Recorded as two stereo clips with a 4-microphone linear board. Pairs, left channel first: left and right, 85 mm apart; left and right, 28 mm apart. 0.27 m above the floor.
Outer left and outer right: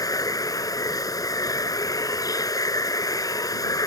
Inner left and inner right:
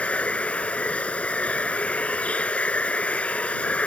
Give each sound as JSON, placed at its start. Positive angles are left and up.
{"t": 0.0, "sound": "running water", "side_deg": 45}